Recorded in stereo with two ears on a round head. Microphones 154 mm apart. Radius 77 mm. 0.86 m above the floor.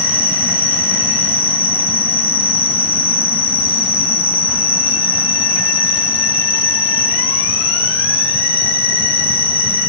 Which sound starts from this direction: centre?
An insect, at 0.0 s.